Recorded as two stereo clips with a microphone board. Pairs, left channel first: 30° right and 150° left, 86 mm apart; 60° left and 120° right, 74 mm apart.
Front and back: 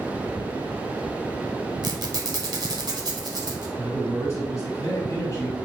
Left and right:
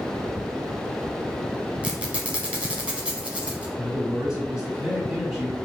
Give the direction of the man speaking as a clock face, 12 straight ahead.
1 o'clock.